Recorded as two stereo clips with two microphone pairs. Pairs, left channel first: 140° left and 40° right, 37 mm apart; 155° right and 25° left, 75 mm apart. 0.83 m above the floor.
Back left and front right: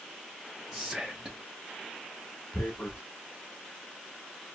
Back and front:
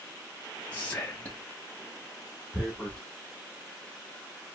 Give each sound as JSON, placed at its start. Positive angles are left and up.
{"t": 0.7, "sound": "whispering", "azimuth_deg": -95, "distance_m": 0.7}
{"t": 2.5, "sound": "tearing paper", "azimuth_deg": 120, "distance_m": 1.7}